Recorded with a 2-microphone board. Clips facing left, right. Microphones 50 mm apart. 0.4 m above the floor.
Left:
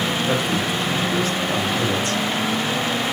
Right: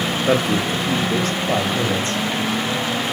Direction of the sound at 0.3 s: 50° right (ahead or behind).